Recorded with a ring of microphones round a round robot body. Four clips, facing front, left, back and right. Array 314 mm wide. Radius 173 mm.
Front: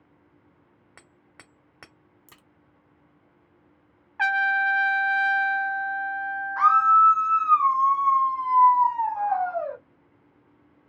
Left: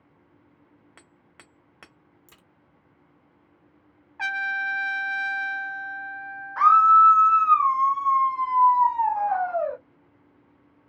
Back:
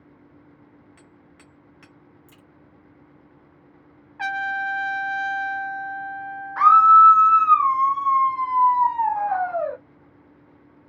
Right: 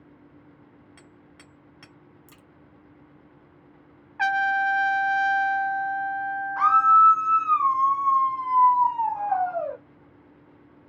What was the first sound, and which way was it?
Hammering, 30° left.